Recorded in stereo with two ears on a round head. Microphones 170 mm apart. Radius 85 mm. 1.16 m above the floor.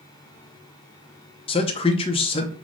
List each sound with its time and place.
1.5 s a man speaking: 30° left (ahead or behind), 0.5 m